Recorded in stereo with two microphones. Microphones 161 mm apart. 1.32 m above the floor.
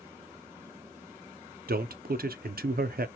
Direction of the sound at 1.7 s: 80° right.